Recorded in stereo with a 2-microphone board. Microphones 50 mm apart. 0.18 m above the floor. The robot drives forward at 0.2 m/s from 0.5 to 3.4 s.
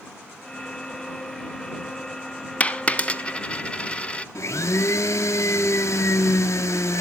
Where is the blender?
75° left (ahead or behind), 0.8 m.